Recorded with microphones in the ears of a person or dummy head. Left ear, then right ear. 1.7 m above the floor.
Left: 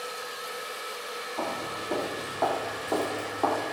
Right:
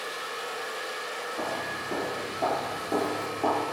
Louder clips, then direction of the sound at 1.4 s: Left 1 dB; 60° left (ahead or behind).